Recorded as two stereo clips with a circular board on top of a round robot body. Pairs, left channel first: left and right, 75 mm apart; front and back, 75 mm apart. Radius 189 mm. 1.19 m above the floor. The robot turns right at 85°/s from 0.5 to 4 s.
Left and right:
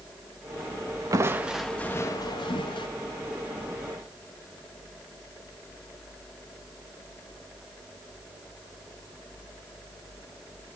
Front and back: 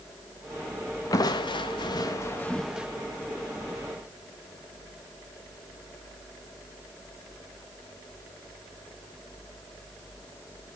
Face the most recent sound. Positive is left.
turn(degrees=-160)